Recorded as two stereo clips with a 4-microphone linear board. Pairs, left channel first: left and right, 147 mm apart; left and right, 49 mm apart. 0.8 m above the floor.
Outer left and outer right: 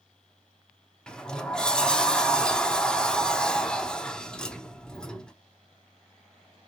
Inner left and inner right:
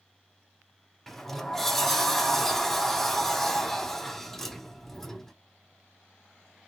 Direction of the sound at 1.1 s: 5° left (ahead or behind).